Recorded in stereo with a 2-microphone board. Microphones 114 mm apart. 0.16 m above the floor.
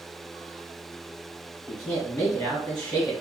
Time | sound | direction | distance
1.7 | a man speaking | 15° left (ahead or behind) | 1.3 m